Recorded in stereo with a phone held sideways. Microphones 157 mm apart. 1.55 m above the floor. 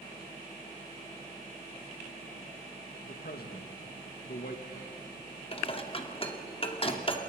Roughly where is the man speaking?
Left.